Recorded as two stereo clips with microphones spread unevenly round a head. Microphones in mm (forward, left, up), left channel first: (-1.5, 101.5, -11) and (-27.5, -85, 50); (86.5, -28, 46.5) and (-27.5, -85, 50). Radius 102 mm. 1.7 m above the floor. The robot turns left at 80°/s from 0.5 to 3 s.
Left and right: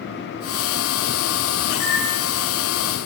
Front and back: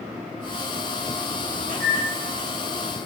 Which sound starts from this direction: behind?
A microwave, at 1.7 s.